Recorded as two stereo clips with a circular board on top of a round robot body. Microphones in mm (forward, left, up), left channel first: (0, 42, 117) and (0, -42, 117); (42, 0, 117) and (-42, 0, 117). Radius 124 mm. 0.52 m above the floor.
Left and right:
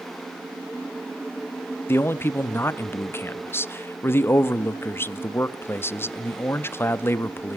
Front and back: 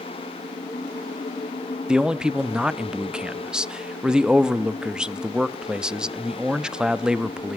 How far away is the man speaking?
About 0.7 m.